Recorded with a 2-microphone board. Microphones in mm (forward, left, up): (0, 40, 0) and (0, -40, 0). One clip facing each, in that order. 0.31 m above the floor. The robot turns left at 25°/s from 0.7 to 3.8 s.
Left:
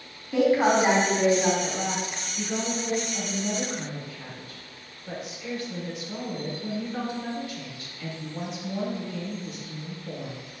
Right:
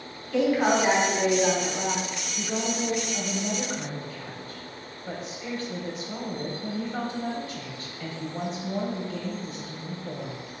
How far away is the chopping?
No chopping in this recording.